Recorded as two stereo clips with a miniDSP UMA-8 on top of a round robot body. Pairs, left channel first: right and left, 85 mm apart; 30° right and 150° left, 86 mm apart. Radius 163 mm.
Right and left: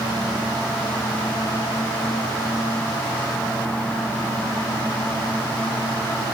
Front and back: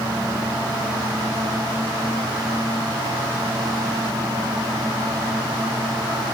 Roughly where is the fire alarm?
I don't hear a fire alarm.